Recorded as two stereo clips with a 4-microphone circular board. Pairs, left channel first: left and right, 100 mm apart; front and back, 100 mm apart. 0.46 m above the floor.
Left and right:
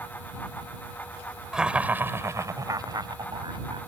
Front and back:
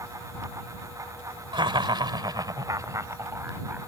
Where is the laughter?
170° right; by 3.8 s 115° right.